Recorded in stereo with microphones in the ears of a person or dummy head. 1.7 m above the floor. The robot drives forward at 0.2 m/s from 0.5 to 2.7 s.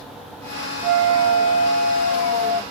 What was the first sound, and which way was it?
A flute, 70° right (ahead or behind).